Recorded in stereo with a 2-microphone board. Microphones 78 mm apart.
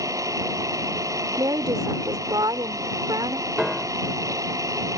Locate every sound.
0.0 s an engine running: 45° right (ahead or behind)
1.4 s a woman speaking: 60° right (ahead or behind)
3.6 s a piano: 5° right (ahead or behind)